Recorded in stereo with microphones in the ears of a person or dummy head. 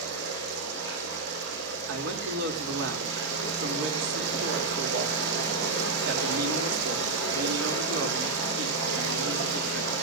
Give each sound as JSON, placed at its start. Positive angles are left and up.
{"t": 0.0, "sound": "running water", "side_deg": -70, "distance_m": 8.5}
{"t": 1.9, "sound": "a man speaking", "side_deg": -75, "distance_m": 2.5}